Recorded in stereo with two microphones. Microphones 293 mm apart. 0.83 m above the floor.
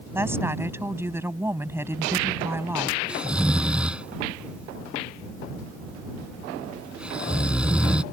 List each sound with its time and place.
0.1 s a woman speaking: 10° right (ahead or behind)
3.1 s snoring: 5° right (ahead or behind)